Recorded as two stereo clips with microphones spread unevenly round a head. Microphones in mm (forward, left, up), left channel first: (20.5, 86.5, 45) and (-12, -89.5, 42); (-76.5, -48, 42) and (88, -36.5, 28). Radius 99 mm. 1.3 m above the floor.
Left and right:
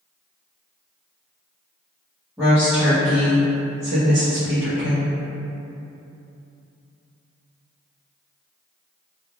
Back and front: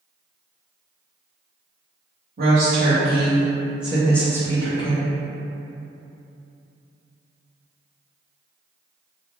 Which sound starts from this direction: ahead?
A woman speaking, at 2.4 s.